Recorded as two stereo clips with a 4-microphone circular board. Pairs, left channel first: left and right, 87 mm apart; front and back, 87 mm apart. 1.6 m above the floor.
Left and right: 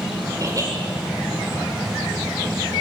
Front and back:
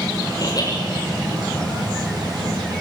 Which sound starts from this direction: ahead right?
Laughter, at 0.4 s.